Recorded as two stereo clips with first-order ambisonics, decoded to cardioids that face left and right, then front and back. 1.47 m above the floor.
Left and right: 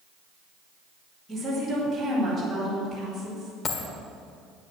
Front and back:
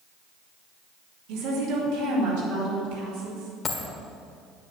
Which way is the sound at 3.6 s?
55° left.